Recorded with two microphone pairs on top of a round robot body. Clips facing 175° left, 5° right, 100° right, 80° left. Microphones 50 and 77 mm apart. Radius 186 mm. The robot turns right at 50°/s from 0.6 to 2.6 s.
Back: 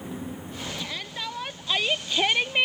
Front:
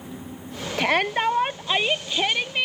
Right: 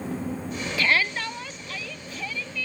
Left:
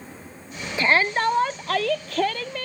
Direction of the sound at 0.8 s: 15° left.